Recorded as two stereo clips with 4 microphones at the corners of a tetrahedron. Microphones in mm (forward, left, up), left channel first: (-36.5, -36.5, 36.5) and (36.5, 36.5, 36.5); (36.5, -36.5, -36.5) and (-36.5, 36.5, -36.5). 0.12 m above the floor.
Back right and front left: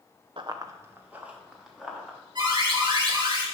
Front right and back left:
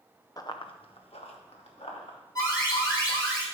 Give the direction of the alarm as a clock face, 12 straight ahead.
12 o'clock.